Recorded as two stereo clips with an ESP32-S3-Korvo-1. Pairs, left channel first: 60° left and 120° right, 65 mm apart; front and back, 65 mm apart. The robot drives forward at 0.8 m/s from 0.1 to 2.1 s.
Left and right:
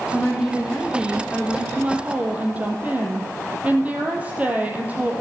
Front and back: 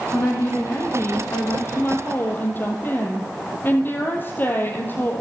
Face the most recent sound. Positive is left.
turn(degrees=-55)